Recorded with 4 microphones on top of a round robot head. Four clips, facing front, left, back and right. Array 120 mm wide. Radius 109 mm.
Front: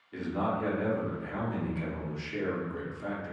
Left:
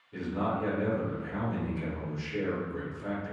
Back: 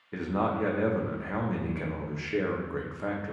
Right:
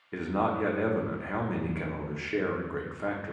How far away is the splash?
No splash in this recording.